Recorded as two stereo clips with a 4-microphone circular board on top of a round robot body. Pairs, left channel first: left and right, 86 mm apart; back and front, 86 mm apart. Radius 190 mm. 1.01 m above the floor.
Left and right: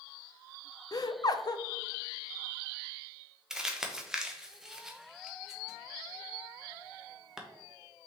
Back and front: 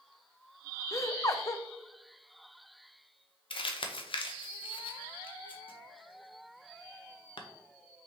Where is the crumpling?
175° right, 0.7 m.